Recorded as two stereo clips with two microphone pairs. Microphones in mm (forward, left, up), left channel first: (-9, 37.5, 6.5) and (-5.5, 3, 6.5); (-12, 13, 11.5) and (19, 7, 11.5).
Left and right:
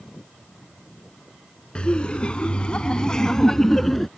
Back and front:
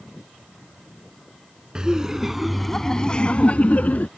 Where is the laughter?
50° left; by 4.1 s straight behind.